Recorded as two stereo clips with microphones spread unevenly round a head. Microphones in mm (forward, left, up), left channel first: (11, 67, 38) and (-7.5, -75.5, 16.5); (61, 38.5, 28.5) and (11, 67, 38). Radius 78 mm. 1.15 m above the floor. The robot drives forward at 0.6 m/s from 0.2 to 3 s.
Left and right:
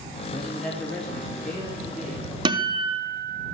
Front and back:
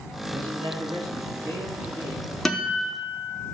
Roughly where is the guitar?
Right.